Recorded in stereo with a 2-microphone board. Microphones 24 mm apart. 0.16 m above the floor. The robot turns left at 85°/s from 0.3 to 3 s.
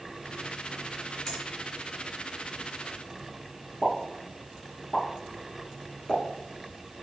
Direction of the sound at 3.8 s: 20° left (ahead or behind).